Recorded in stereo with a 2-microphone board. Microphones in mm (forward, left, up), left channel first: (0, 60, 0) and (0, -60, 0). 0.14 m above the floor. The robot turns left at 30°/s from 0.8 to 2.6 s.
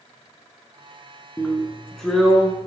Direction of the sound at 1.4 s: 30° left.